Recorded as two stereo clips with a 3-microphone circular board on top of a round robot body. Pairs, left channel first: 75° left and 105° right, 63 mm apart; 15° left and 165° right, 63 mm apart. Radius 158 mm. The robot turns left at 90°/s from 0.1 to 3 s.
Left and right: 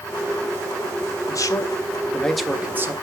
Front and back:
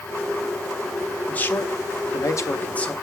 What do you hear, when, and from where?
1.3 s a man speaking: 85° left, 1.6 m; by 2.9 s 65° right, 1.6 m